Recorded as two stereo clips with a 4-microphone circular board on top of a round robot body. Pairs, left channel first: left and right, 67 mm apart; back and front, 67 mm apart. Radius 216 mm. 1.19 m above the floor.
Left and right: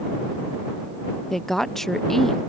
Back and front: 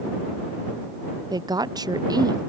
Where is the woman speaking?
5° left.